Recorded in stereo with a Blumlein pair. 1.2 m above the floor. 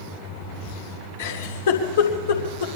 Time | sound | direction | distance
1.2 | a giggle | 60° left | 3 m